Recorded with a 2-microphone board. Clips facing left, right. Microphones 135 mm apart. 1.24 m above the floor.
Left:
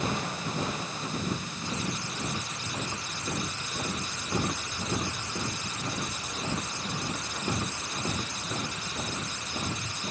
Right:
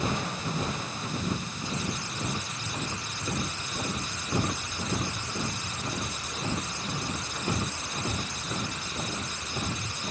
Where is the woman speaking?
I don't hear a woman speaking.